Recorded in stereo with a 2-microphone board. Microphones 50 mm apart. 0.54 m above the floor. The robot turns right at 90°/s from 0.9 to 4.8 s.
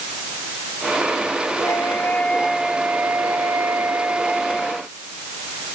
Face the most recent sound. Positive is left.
turn(degrees=25)